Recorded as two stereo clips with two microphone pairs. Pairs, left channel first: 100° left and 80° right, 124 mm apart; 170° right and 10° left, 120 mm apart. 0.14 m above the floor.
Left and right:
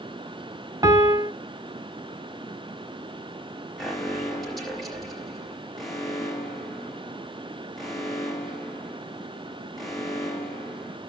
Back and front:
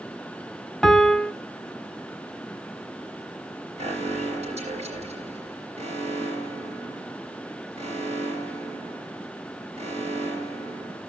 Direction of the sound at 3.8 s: 10° left.